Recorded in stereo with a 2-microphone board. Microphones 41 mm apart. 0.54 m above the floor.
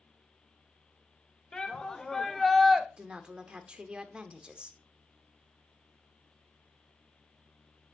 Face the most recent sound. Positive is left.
turn(degrees=-25)  # may be behind; listen again after turning